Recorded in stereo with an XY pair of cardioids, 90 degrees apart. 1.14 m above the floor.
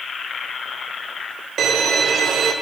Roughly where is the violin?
Ahead right.